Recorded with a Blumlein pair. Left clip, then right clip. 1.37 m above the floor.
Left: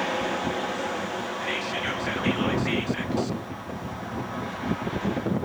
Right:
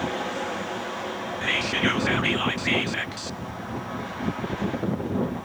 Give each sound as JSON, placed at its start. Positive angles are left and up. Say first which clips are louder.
{"t": 1.4, "sound": "whispering", "louder": "right 7 dB", "azimuth_deg": -20, "distance_m": 0.6}